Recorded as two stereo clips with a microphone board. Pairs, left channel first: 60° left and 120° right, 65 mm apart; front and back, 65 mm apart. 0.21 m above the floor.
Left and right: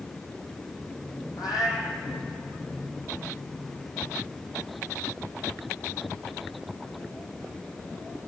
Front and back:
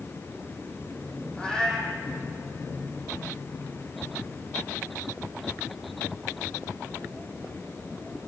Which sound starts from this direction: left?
A cat meowing, at 1.4 s.